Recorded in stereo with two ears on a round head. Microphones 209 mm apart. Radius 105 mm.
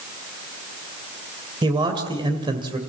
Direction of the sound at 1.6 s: 20° right (ahead or behind).